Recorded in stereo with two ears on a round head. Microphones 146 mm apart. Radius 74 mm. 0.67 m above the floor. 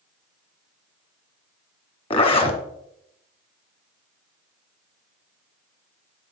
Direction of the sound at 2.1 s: 35° left (ahead or behind).